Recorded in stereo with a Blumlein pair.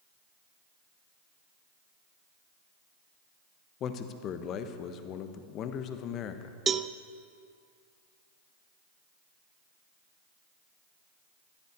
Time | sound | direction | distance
3.8 | a man speaking | 30° left | 1.3 m
6.7 | a cowbell | 20° right | 0.6 m